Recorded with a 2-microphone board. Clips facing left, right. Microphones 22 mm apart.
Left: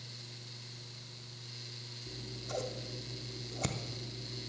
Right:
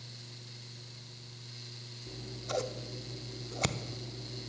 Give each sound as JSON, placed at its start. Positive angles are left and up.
{"t": 2.1, "sound": "scissors", "side_deg": -30, "distance_m": 0.6}